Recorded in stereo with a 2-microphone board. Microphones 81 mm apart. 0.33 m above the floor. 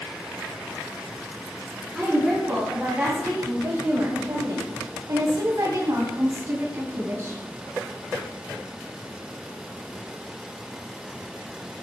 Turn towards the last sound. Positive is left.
turn(degrees=-30)  # may be behind; listen again after turning